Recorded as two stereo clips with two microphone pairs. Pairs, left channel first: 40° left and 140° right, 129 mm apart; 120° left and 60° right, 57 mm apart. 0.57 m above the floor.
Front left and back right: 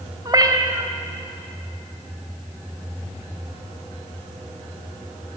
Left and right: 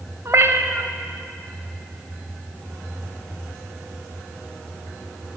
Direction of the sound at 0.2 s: 85° right.